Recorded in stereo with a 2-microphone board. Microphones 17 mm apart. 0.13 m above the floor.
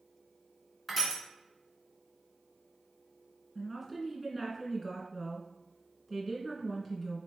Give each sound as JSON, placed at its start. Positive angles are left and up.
{"t": 0.9, "sound": "crushing", "side_deg": -5, "distance_m": 1.4}
{"t": 3.5, "sound": "a woman speaking", "side_deg": 10, "distance_m": 1.7}